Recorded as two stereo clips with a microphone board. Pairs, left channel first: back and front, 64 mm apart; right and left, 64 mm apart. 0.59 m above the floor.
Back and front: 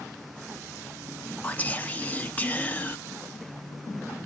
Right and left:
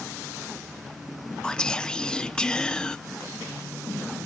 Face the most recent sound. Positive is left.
turn(degrees=-155)